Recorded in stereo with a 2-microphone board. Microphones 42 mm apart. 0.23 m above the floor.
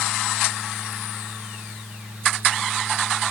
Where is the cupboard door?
No cupboard door in this recording.